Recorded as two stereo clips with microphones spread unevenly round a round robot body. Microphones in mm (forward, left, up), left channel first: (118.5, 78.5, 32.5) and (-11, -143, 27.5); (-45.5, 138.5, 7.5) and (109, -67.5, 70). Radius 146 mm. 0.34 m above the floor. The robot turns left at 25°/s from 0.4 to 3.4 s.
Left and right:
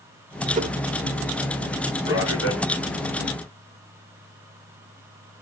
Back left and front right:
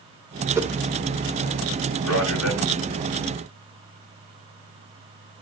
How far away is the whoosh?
About 1.4 m.